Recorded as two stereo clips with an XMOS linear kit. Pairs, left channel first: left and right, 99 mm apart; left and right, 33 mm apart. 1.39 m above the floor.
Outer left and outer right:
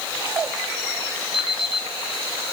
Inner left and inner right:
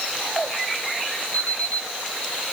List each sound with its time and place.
1.3 s an alarm clock: 55° left (ahead or behind), 6 m